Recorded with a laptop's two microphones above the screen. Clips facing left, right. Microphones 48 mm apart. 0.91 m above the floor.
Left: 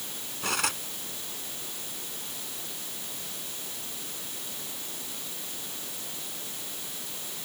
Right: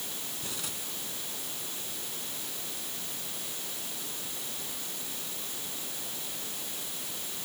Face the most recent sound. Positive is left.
turn(degrees=85)